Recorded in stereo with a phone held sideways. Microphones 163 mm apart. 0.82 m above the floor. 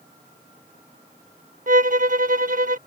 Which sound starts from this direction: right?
A violin, at 1.7 s.